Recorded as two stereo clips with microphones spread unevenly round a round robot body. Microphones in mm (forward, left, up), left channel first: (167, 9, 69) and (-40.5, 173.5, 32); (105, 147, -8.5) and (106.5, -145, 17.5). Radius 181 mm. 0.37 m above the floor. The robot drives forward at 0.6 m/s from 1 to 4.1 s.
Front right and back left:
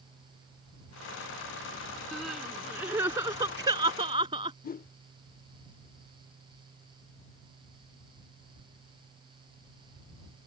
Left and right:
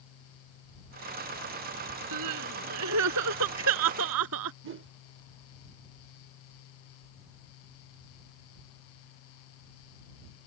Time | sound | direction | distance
2.1 | crying | 130° right | ?
4.6 | a whoosh | 80° right | ?